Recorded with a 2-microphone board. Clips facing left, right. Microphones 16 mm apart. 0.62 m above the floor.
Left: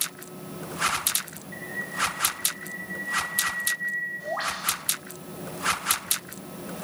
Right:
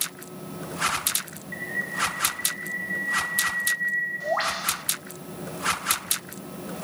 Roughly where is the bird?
Right.